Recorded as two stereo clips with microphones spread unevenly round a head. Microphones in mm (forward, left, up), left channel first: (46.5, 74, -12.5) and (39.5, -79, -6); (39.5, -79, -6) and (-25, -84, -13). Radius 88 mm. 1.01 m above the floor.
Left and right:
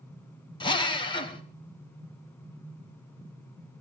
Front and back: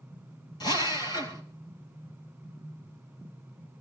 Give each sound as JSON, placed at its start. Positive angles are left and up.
{"t": 0.6, "sound": "a drill", "azimuth_deg": 30, "distance_m": 2.5}